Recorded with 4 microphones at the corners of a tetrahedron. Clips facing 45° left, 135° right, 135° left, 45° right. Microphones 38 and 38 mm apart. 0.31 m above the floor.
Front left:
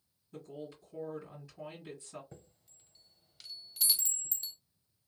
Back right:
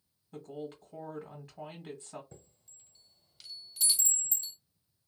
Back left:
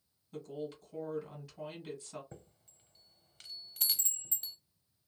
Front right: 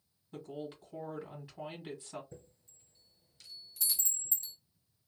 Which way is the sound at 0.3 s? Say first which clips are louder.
Back right 3 dB, back left 1 dB; 105° right.